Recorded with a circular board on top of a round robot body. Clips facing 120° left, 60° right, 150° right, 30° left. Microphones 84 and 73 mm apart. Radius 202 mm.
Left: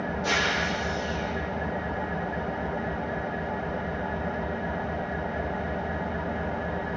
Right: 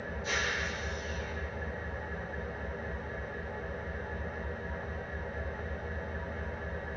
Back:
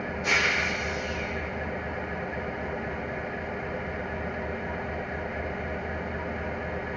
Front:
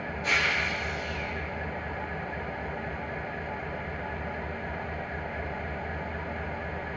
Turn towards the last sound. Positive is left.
turn(degrees=125)